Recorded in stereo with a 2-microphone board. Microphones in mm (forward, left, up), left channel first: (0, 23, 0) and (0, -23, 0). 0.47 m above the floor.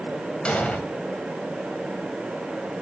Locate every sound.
0.5 s an explosion: 20° left (ahead or behind), 2 m